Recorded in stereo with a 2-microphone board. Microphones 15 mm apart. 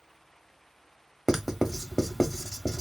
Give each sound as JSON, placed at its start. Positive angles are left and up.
{"t": 1.3, "sound": "writing", "side_deg": -25, "distance_m": 0.7}